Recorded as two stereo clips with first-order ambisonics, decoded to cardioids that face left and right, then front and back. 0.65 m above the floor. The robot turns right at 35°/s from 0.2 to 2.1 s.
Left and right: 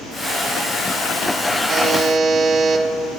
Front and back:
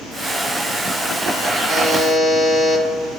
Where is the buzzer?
40° right, 4.5 m; by 2.9 s 25° right, 4.5 m.